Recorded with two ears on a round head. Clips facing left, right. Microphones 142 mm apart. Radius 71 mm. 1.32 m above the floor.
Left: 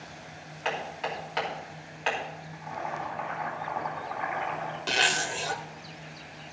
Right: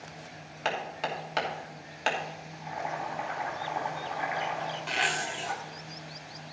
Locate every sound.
0.7 s hammering: 55° right (ahead or behind), 2.5 m
2.5 s boiling: 20° right (ahead or behind), 3.5 m
4.9 s a zipper: 45° left (ahead or behind), 1.2 m